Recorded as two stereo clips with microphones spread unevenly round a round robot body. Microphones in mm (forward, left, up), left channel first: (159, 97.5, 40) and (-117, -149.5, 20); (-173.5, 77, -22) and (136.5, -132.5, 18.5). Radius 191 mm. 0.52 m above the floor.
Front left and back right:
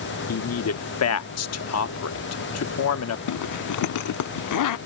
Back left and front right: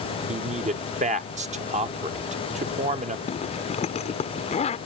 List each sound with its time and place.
0.3 s a man speaking: 35° left
3.3 s a zipper: 80° left